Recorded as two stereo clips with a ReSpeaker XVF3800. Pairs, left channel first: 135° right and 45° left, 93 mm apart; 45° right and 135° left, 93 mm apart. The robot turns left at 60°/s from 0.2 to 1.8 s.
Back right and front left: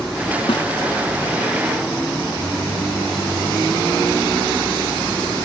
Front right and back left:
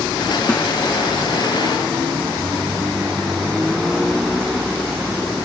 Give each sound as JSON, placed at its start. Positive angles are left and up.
{"t": 0.5, "sound": "a snare drum", "azimuth_deg": -120, "distance_m": 1.8}